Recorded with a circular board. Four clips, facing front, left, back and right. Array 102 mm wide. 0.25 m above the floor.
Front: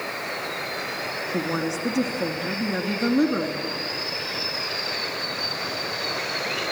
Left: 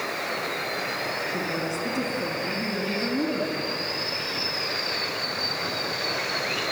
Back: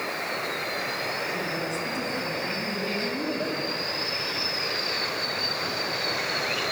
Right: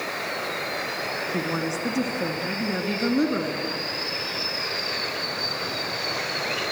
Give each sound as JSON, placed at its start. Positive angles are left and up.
{"t": 1.3, "sound": "a woman speaking", "azimuth_deg": -30, "distance_m": 2.5}